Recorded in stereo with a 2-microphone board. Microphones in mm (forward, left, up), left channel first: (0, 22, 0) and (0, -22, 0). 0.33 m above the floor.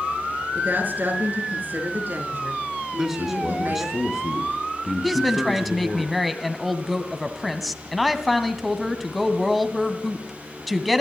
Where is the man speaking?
10° right (ahead or behind), 4 m.